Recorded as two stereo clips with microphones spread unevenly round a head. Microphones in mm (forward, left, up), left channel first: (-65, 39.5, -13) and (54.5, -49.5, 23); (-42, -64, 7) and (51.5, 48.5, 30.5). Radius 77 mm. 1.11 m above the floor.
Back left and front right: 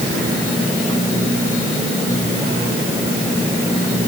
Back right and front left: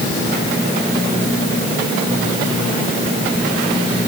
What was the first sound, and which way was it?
Only background noise.